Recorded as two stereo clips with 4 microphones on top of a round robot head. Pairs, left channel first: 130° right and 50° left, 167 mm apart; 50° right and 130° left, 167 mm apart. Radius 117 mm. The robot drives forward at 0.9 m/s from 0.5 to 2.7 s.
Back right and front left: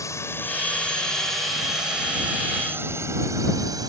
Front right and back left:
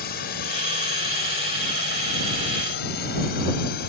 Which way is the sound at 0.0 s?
60° right.